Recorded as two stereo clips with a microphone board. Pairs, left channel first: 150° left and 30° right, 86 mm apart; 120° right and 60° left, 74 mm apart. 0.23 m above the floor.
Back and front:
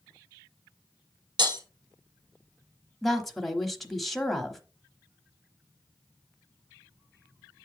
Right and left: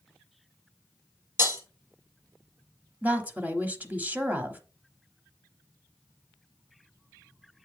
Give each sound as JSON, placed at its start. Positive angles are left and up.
{"t": 1.4, "sound": "breaking glass", "azimuth_deg": 5, "distance_m": 2.0}
{"t": 3.0, "sound": "a woman speaking", "azimuth_deg": 65, "distance_m": 1.0}